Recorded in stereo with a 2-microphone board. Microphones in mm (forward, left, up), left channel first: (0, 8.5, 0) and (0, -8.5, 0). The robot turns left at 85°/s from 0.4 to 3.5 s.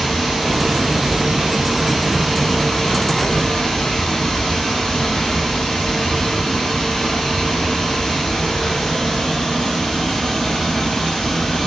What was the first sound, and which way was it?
Running water, 15° right.